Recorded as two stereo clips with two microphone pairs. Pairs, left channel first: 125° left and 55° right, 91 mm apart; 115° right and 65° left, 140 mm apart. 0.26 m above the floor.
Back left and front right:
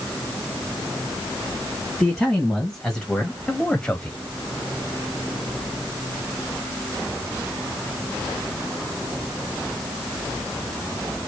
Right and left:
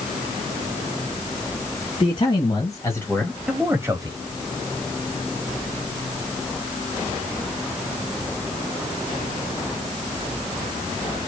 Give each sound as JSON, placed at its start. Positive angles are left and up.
{"t": 2.0, "sound": "a man speaking", "azimuth_deg": -150, "distance_m": 2.5}